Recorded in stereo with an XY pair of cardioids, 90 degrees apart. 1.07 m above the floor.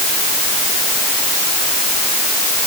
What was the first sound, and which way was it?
Only background noise.